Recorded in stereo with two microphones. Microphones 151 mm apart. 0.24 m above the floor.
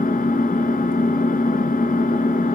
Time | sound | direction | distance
0.0 | an engine running | 75° left (ahead or behind) | 0.9 m